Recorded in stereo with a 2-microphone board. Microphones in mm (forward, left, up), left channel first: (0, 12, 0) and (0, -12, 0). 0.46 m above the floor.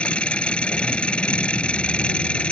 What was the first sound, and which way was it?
An engine running, 50° left (ahead or behind).